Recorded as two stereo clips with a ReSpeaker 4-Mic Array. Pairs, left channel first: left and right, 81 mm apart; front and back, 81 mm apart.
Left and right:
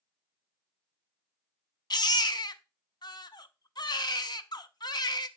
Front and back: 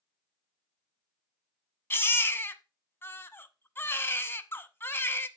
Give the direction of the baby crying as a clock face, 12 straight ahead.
10 o'clock.